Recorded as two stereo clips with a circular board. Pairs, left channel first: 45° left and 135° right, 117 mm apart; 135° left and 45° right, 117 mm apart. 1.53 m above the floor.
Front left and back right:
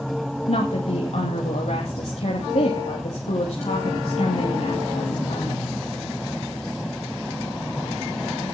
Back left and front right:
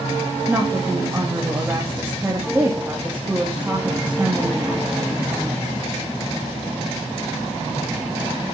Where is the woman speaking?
25° left, 2.5 m.